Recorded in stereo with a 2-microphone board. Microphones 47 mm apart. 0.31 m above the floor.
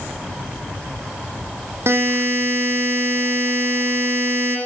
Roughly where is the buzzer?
Right.